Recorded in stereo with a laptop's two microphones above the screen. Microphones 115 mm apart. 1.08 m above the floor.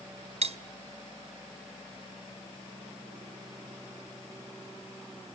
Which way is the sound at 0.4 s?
60° right (ahead or behind).